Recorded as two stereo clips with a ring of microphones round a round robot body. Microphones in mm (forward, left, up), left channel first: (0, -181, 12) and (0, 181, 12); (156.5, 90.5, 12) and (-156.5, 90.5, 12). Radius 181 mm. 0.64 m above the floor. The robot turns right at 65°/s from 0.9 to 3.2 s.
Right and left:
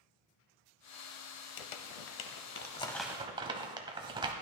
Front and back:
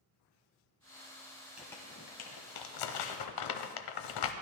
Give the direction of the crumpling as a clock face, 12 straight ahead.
3 o'clock.